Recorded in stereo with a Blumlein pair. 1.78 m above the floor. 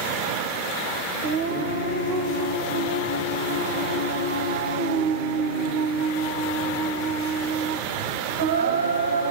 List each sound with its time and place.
1.2 s singing: 60° right, 0.6 m